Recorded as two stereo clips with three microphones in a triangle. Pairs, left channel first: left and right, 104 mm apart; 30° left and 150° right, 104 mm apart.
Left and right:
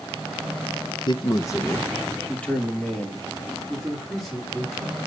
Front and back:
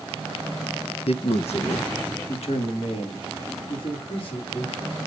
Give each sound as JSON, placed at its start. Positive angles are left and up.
{"t": 1.1, "sound": "a man speaking", "azimuth_deg": 50, "distance_m": 0.7}